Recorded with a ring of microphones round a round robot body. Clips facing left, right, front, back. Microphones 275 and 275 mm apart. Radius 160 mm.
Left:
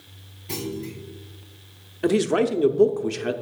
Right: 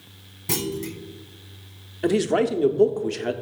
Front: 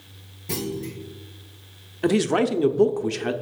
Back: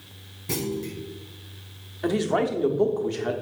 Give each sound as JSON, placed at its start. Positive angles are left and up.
{"t": 0.5, "sound": "a clunk", "azimuth_deg": -95, "distance_m": 1.3}
{"t": 2.0, "sound": "a man speaking", "azimuth_deg": 10, "distance_m": 0.9}